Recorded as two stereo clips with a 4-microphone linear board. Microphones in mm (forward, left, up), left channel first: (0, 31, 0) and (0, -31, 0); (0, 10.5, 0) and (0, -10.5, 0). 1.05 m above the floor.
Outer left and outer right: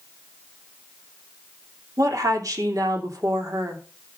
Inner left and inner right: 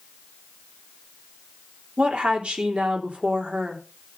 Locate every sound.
2.0 s a woman speaking: 65° right (ahead or behind), 3 m